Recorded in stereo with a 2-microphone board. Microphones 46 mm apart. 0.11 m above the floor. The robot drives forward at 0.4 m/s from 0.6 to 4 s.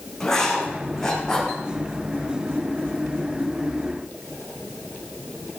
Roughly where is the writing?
Centre.